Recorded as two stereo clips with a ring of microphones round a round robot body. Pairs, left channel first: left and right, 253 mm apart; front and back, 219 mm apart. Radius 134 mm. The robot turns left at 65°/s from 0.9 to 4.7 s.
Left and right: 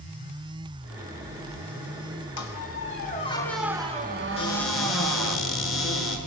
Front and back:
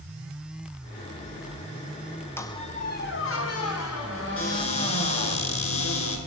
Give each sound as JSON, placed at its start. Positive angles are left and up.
{"t": 2.4, "sound": "a squeak", "azimuth_deg": 80, "distance_m": 3.5}
{"t": 4.4, "sound": "a cupboard door", "azimuth_deg": 20, "distance_m": 8.0}